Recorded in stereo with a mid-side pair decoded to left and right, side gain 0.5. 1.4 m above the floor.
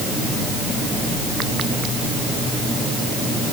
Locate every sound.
Only background noise.